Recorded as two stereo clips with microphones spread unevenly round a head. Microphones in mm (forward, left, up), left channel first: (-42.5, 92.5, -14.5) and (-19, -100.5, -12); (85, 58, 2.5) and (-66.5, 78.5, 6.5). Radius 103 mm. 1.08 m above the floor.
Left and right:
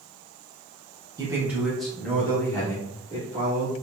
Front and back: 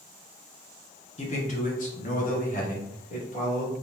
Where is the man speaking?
15° right, 0.7 m; by 3.7 s 25° left, 1.8 m.